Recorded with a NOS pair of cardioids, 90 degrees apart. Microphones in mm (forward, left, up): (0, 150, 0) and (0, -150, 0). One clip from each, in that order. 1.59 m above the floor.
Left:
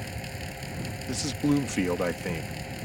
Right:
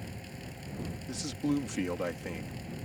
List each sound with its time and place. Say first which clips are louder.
0.0 s a fan: left 8 dB; 65° left
1.1 s a man speaking: left 6 dB; 45° left